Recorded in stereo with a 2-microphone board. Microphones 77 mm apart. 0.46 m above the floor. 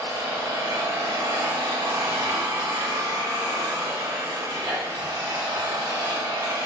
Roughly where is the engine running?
Right.